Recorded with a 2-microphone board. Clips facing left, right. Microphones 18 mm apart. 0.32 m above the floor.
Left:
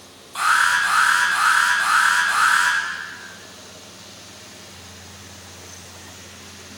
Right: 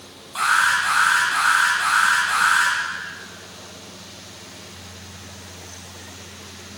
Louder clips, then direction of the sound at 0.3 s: Left 1 dB; 5° left (ahead or behind).